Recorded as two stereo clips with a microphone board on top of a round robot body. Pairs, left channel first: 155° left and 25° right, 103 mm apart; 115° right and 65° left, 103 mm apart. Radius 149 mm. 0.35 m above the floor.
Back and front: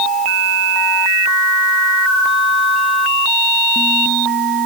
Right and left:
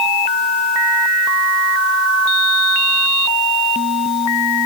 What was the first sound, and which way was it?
Only background noise.